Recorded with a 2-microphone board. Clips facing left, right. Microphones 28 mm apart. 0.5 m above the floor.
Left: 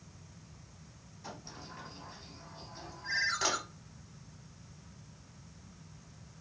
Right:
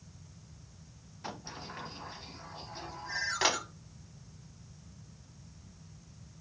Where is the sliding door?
40° right (ahead or behind), 0.8 m.